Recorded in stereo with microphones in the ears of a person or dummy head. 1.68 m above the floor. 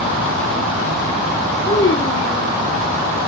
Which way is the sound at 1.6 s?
30° left (ahead or behind).